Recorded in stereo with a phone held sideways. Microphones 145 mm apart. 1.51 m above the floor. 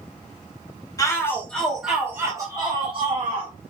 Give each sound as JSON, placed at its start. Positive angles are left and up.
{"t": 1.0, "sound": "a shout", "side_deg": 25, "distance_m": 2.5}